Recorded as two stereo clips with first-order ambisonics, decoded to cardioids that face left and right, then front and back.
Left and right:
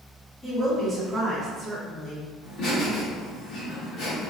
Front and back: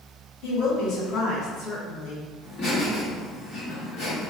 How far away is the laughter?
About 2.0 m.